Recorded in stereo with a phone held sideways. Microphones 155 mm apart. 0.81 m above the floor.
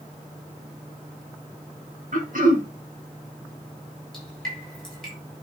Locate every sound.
2.1 s throat clearing: 70° right (ahead or behind), 1.9 m
4.1 s dripping: 5° left (ahead or behind), 6.5 m